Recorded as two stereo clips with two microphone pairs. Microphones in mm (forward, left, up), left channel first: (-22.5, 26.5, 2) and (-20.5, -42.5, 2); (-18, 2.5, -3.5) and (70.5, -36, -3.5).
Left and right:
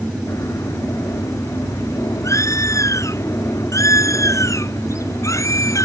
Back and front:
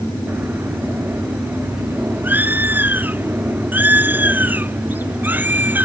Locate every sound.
0.3 s a bird: 50° left